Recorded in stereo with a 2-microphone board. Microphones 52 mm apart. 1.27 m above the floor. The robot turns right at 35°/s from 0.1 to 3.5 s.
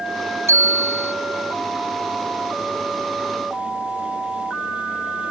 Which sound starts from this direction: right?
A bicycle bell, at 0.5 s.